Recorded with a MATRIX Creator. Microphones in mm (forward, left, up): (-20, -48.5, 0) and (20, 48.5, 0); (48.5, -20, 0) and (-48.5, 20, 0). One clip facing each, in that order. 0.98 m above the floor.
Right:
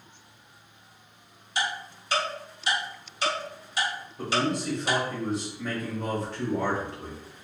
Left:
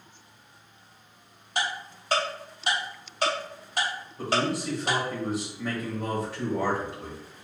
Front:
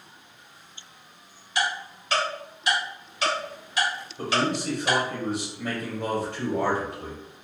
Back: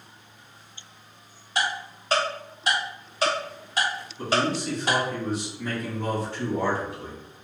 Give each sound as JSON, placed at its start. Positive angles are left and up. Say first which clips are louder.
{"t": 1.6, "sound": "ticking", "louder": "even, even", "azimuth_deg": 110, "distance_m": 1.3}
{"t": 4.2, "sound": "a man speaking", "louder": "even, back 1 dB", "azimuth_deg": -20, "distance_m": 1.0}